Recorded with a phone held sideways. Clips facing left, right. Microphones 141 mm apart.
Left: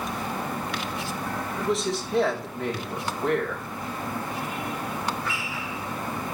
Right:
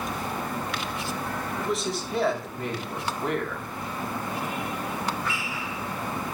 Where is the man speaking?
Centre (ahead or behind), 4 m.